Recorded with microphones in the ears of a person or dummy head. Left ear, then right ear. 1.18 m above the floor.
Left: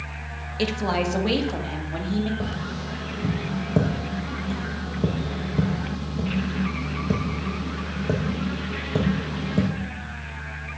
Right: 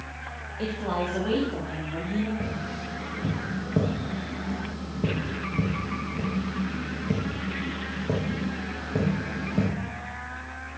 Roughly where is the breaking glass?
I don't hear breaking glass.